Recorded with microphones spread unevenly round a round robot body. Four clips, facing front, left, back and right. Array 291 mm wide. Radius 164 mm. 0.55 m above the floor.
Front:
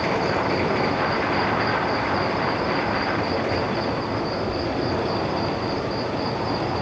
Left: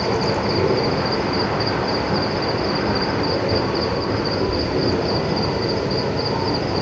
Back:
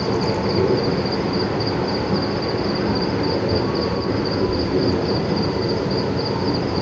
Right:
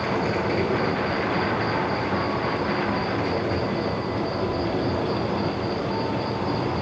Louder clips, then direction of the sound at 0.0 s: Left 4 dB, back 2 dB; 165° left.